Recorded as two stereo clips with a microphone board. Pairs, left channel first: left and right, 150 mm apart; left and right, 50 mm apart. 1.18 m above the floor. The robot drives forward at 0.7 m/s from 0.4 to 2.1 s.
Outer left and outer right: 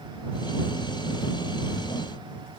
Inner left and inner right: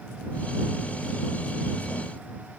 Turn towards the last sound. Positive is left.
No sound to turn to.